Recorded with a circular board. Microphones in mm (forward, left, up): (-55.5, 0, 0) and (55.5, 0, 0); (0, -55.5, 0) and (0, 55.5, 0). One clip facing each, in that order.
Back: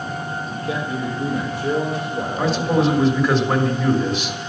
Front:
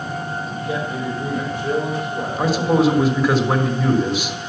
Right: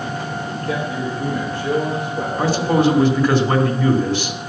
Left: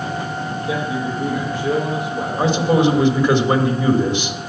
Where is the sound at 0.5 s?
160° left, 5.5 m.